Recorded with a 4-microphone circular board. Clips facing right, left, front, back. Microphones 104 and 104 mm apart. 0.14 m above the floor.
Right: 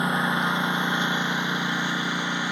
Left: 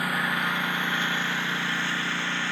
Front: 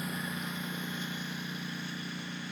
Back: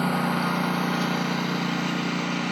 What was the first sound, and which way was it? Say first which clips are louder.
A lawn mower: right 4 dB, back 14 dB; 160° right.